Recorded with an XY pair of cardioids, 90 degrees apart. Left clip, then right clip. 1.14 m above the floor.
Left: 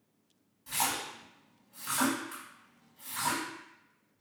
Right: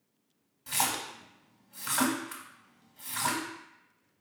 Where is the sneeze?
I don't hear a sneeze.